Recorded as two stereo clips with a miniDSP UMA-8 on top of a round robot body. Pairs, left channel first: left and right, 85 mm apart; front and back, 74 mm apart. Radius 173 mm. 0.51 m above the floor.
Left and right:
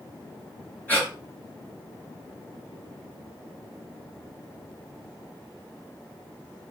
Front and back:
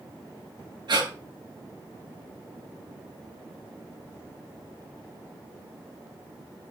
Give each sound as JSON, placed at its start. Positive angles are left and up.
{"t": 0.9, "sound": "breathing", "azimuth_deg": 160, "distance_m": 9.0}